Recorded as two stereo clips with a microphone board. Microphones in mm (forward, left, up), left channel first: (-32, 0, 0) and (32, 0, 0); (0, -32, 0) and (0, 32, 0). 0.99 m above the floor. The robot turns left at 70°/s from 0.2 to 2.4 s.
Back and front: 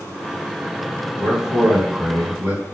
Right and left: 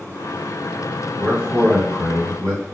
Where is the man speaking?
135° left, 1.6 m; by 2.6 s 50° left, 1.6 m.